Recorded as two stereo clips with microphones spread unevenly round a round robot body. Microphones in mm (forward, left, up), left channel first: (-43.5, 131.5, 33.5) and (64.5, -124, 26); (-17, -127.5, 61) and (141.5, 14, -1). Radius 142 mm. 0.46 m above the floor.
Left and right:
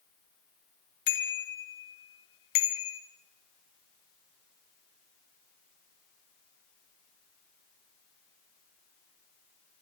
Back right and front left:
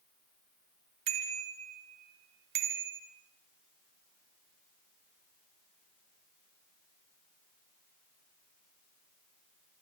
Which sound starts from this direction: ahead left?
A bicycle bell, at 1.1 s.